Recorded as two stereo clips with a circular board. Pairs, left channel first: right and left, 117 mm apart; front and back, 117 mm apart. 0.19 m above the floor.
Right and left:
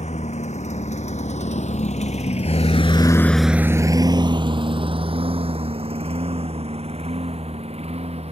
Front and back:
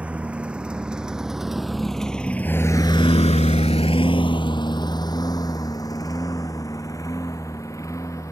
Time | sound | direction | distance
0.0 | a lawn mower | 100° right | ?